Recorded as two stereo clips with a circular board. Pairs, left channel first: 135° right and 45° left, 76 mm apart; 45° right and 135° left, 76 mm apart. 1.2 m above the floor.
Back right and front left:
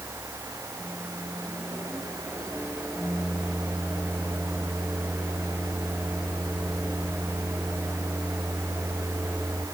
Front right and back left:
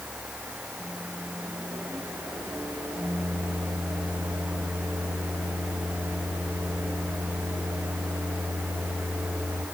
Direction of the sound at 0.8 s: 145° left.